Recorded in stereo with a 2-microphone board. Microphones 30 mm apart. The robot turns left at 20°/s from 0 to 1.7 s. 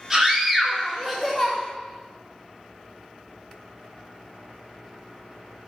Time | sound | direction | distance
0.1 | a scream | 15° right (ahead or behind) | 4.5 m